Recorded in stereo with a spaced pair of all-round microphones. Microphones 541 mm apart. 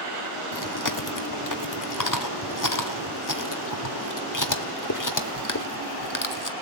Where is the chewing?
35° left (ahead or behind), 1.1 m.